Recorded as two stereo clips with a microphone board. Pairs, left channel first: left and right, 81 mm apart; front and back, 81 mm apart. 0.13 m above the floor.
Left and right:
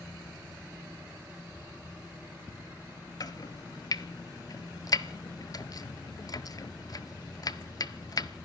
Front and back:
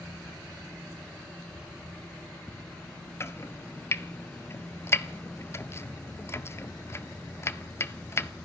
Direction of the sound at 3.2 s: 55° left.